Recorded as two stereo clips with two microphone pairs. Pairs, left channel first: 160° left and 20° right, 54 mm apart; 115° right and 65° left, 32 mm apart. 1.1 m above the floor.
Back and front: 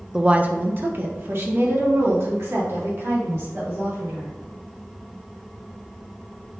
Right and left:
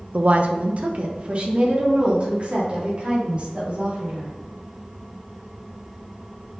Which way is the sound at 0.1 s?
55° left.